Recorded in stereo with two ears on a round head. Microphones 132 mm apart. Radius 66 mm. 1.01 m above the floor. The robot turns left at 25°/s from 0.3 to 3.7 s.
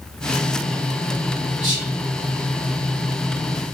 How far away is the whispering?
About 2.0 m.